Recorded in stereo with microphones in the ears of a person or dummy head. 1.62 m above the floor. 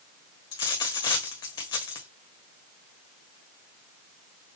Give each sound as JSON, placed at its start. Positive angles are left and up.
{"t": 0.5, "sound": "a dropped coin", "side_deg": 25, "distance_m": 1.3}